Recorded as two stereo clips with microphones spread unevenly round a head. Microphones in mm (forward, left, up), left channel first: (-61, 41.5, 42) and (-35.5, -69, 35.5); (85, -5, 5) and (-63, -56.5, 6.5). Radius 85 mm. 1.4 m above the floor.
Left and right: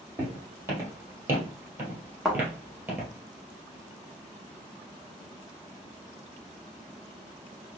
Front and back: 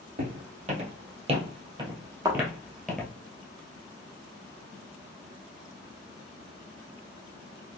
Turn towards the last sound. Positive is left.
turn(degrees=-165)